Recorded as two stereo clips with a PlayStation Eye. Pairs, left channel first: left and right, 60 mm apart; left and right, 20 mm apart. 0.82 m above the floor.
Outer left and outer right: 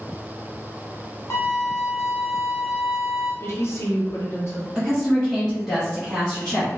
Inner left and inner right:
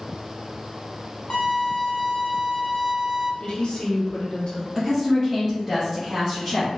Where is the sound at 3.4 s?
45° left (ahead or behind), 0.9 m.